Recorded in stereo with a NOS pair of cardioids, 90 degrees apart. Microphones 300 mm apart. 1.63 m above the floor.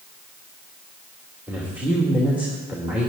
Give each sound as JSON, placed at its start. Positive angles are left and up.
{"t": 1.5, "sound": "a man speaking", "azimuth_deg": -5, "distance_m": 2.5}